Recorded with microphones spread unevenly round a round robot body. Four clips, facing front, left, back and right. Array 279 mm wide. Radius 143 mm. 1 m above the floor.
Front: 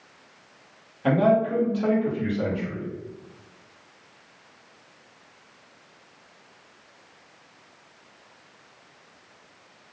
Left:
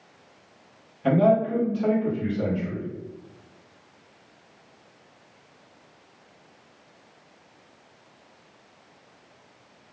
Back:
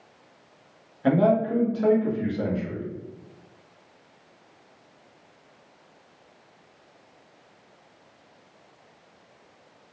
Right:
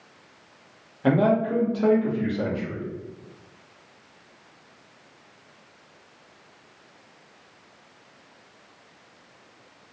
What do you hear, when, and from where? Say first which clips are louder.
1.0 s a man speaking: left 1 dB, even; 95° right, 1.2 m